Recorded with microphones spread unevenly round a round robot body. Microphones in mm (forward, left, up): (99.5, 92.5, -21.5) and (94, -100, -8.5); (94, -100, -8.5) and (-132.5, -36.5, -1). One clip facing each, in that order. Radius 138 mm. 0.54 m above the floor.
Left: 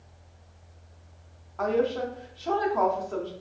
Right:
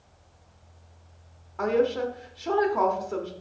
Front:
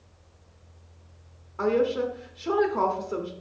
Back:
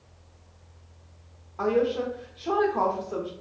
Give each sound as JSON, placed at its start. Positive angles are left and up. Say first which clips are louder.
{"t": 1.6, "sound": "a woman speaking", "louder": "right 2 dB, front 1 dB", "azimuth_deg": -30, "distance_m": 0.6}